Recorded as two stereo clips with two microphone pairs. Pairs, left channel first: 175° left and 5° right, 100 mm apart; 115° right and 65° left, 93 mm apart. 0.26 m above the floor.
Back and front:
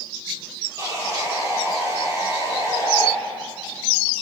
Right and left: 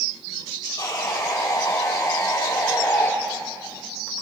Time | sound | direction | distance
0.8 | sawing | 60° right | 3.5 m